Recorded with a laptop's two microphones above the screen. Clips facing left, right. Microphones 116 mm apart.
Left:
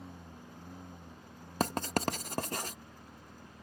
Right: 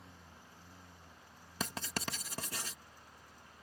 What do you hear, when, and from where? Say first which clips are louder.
0.0 s a lawn mower: left 8 dB; 55° left (ahead or behind); by 3.6 s 60° left (ahead or behind)
1.6 s writing: left 9 dB; 50° left (ahead or behind)